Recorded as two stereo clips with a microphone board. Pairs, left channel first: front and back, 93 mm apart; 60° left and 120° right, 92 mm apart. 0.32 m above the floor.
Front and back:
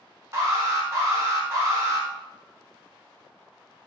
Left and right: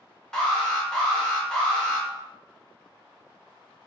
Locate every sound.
0.3 s an alarm: 140° left, 0.7 m